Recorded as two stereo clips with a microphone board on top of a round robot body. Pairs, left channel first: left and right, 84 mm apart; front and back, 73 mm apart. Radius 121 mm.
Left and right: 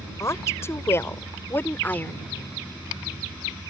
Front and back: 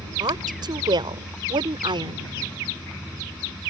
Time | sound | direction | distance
0.2 | a woman speaking | 150° left | ?